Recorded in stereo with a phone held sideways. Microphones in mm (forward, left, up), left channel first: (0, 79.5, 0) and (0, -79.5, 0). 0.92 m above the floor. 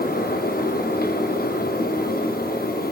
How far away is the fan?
About 0.9 m.